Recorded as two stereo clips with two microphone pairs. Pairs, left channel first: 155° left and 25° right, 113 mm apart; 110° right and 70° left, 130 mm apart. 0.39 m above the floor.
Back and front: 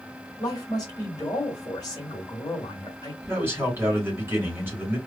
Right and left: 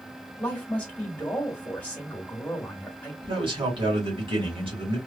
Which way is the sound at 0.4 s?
Straight behind.